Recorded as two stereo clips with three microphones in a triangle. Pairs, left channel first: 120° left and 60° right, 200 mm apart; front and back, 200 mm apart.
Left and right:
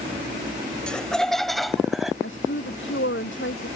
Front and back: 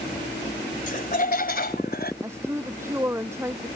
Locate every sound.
0.9 s laughter: 35° left; by 2.1 s 30° left
2.2 s a woman speaking: 100° left